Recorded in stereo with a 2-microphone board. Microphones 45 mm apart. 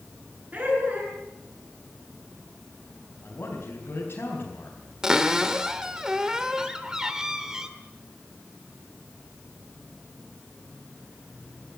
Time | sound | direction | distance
0.5 | laughter | 40° right (ahead or behind) | 8 m
3.2 | a man speaking | 55° left (ahead or behind) | 4.5 m
5.0 | a cupboard door | 15° right (ahead or behind) | 1.6 m